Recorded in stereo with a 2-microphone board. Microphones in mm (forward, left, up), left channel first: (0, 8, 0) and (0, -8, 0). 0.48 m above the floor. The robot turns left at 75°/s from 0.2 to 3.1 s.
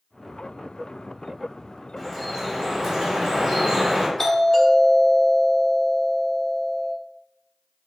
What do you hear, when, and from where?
2.0 s dripping: 25° left, 1.0 m; by 4.1 s 60° right, 1.0 m
4.2 s a doorbell: 35° left (ahead or behind), 1.4 m